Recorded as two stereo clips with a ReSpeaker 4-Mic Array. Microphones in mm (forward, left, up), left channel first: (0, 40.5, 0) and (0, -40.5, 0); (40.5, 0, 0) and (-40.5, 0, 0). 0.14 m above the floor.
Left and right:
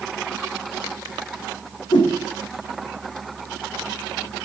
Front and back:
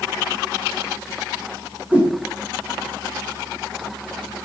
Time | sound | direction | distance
1.9 | a whoosh | 110° left | 5 m